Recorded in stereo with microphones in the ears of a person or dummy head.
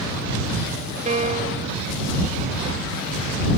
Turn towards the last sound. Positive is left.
turn(degrees=-35)  # may be behind; listen again after turning